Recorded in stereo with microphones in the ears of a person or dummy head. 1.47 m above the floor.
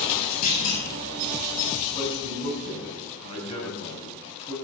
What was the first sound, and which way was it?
A clunk, 45° left (ahead or behind).